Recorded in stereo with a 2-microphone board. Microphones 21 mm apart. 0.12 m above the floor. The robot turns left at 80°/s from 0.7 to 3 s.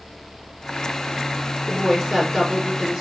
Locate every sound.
1.7 s a woman speaking: 25° left, 2.5 m; by 3.0 s 80° right, 2.5 m